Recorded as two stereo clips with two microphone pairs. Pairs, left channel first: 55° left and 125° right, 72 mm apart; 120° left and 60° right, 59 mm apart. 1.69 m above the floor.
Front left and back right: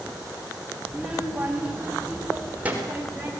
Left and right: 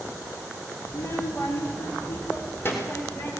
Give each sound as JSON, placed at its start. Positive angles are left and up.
{"t": 0.9, "sound": "a child speaking", "azimuth_deg": 155, "distance_m": 3.0}